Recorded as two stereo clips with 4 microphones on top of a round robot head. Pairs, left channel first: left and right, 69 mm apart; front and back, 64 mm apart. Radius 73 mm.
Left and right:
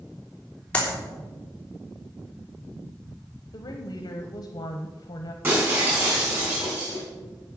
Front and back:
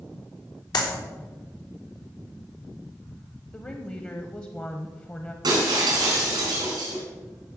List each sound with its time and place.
0.7 s a clap: 15° left, 3.5 m
3.5 s a woman speaking: 70° left, 1.0 m
5.4 s breaking glass: 155° right, 4.5 m